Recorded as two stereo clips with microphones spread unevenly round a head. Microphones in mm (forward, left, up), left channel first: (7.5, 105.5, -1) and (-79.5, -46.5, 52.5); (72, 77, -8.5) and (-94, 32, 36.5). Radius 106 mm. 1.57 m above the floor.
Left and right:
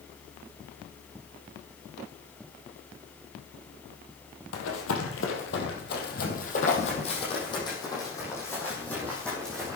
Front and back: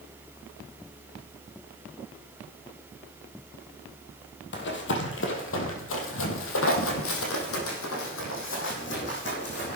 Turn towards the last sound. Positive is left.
turn(degrees=-35)